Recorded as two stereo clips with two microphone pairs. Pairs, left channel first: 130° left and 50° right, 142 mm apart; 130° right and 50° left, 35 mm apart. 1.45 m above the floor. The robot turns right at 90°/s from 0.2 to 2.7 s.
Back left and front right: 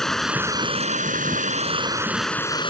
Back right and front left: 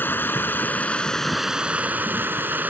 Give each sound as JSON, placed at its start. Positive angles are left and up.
{"t": 0.0, "sound": "running water", "azimuth_deg": -145}